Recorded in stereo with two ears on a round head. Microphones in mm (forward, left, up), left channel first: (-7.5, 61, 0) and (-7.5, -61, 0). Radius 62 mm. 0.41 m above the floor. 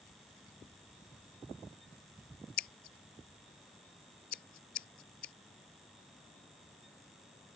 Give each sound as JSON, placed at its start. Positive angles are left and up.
{"t": 2.6, "sound": "scissors", "side_deg": 70}